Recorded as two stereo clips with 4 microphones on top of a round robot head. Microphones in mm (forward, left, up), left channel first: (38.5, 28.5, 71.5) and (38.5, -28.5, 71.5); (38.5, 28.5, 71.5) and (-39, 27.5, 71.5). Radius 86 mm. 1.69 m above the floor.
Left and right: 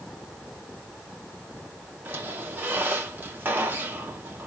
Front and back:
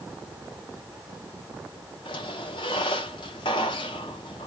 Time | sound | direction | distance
2.0 | a squeak | 35° right | 1.4 m